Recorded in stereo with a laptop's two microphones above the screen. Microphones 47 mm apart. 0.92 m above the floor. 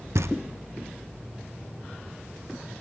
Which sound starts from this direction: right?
Knocking, at 0.1 s.